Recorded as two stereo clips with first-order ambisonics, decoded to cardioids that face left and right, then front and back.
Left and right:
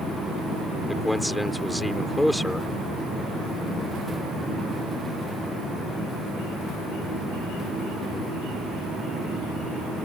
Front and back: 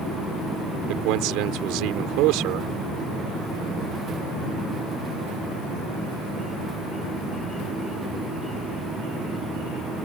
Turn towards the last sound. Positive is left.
turn(degrees=180)